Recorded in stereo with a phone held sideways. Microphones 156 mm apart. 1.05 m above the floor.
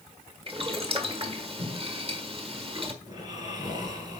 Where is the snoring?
25° right (ahead or behind), 3 m.